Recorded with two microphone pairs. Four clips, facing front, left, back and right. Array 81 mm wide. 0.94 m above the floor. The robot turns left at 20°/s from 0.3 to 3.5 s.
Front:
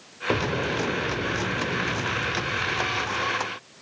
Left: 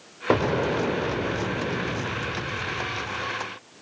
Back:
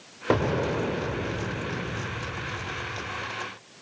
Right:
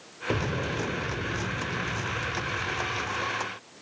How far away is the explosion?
About 1.1 m.